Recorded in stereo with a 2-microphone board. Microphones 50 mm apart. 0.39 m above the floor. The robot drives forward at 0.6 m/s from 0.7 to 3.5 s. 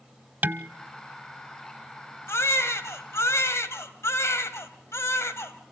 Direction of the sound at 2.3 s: 60° left (ahead or behind).